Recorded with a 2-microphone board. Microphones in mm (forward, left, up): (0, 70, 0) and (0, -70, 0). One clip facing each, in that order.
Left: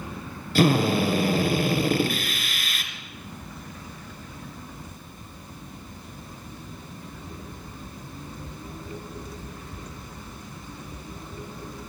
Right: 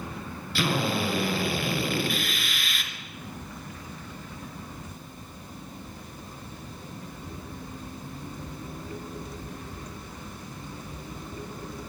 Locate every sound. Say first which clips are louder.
0.6 s a drill: left 7 dB; 45° left (ahead or behind), 3.5 m